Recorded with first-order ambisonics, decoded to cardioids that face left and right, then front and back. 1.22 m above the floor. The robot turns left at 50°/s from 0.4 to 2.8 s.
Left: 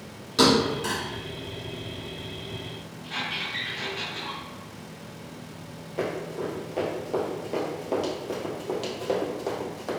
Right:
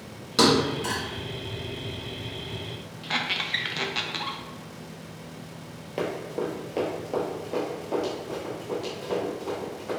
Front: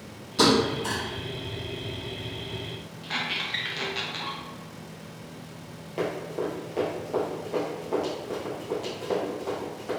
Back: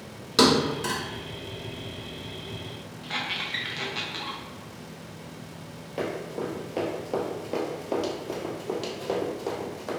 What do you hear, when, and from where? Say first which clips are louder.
0.4 s a thud: even, back 1 dB; 160° right, 1.8 m; by 1.0 s 170° left, 1.8 m
3.0 s a squeak: right 3 dB, front 1 dB; 85° right, 0.6 m
6.0 s running footsteps: right 1 dB, front 2 dB; 95° right, 1.4 m; by 9.9 s 130° left, 2.5 m